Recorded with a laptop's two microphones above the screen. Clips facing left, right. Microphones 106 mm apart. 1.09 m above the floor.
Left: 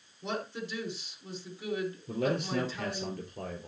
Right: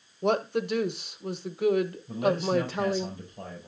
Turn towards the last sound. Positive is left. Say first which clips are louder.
# right 4 dB
turn(degrees=70)  # may be behind; listen again after turning